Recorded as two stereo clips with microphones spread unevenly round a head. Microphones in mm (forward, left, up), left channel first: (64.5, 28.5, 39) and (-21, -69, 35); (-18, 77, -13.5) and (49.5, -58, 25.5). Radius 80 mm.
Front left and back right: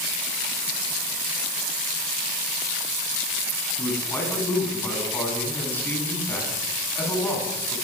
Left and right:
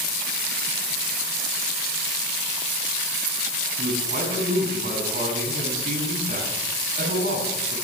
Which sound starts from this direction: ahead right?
A man speaking, at 3.8 s.